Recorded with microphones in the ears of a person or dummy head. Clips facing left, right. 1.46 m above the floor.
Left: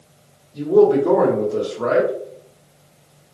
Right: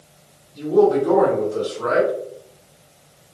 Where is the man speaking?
60° left (ahead or behind), 0.9 m.